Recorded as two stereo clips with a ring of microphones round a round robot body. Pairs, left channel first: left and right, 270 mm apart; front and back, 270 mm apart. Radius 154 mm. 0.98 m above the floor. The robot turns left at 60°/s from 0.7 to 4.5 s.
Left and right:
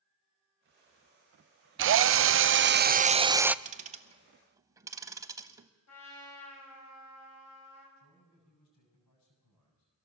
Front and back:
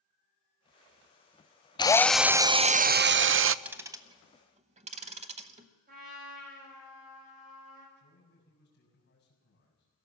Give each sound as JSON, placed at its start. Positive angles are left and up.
{"t": 1.8, "sound": "a drill", "azimuth_deg": -70, "distance_m": 0.6}
{"t": 3.6, "sound": "ticking", "azimuth_deg": -100, "distance_m": 0.8}
{"t": 5.9, "sound": "a trumpet", "azimuth_deg": 115, "distance_m": 6.0}
{"t": 8.0, "sound": "a man speaking", "azimuth_deg": 60, "distance_m": 7.0}